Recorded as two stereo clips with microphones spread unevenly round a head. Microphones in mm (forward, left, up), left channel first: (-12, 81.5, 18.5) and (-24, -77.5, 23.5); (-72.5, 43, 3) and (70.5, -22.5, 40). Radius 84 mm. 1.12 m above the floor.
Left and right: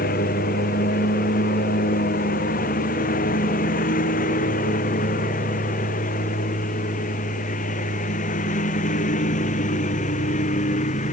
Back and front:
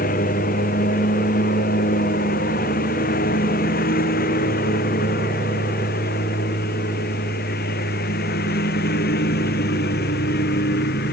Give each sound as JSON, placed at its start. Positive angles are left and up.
{"t": 0.0, "sound": "a lawn mower", "azimuth_deg": 120}